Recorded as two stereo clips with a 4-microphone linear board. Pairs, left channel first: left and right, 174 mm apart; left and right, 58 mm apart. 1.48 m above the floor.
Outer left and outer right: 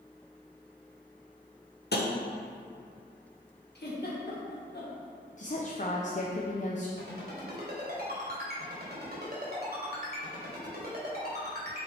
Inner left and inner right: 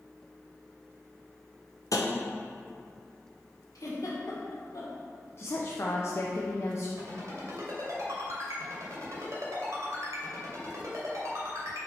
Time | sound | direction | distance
1.9 | tapping | 70° left (ahead or behind) | 0.8 m
3.8 | a giggle | 75° left (ahead or behind) | 1.6 m
5.4 | a woman speaking | 45° left (ahead or behind) | 0.7 m
7.0 | a ringtone | 65° right (ahead or behind) | 2.5 m